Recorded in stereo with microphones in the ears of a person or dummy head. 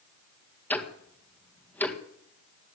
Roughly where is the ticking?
Centre.